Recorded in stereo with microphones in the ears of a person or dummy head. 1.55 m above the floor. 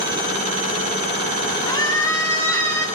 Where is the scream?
25° left (ahead or behind), 6.5 m; by 2.9 s 15° left (ahead or behind), 7 m.